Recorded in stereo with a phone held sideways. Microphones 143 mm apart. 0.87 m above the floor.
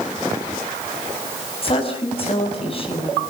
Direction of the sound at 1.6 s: 40° left (ahead or behind).